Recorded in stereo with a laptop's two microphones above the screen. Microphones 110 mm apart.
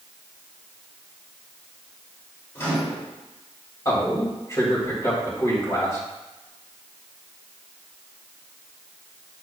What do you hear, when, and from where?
2.5 s a microwave: 25° left (ahead or behind), 2.5 m
3.9 s a man speaking: 30° left (ahead or behind), 3.5 m